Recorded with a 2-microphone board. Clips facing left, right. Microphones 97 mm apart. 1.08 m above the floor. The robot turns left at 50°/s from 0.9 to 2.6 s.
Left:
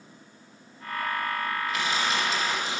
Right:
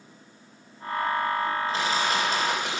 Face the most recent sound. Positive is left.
turn(degrees=-75)